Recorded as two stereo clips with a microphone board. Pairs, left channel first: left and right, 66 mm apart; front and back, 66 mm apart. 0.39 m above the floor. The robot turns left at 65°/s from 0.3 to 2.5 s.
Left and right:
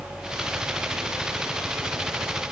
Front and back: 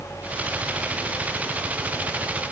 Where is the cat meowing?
I don't hear a cat meowing.